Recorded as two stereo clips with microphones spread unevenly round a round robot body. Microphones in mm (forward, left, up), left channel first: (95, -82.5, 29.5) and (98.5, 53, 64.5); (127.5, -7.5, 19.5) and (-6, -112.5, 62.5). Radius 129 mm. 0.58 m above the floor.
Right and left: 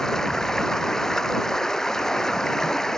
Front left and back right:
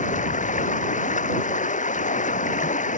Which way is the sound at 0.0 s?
5° right.